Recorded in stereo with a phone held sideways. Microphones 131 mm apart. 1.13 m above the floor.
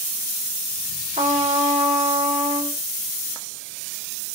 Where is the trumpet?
65° right (ahead or behind), 3.5 m.